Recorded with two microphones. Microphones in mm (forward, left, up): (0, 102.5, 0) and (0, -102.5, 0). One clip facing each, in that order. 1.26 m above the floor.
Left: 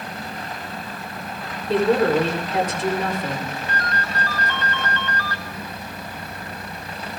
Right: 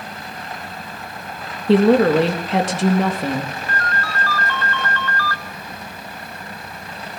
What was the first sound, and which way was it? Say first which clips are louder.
A woman speaking: right 5 dB; 90° right.